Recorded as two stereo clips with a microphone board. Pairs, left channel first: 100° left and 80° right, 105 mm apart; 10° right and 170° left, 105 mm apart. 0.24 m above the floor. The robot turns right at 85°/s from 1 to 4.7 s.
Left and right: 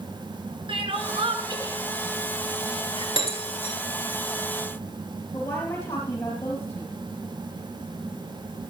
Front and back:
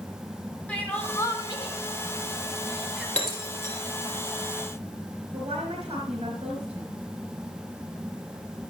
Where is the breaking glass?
65° left, 4 m; by 3.7 s 115° left, 4 m.